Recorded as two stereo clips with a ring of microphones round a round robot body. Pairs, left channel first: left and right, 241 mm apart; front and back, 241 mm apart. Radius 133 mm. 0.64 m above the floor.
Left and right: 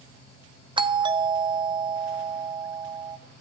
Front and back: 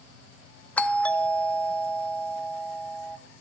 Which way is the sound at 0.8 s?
75° right.